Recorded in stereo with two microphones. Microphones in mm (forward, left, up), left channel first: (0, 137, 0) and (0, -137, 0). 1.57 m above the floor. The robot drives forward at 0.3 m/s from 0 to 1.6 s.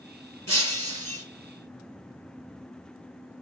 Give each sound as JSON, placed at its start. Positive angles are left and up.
{"t": 0.5, "sound": "breaking glass", "side_deg": -60, "distance_m": 5.0}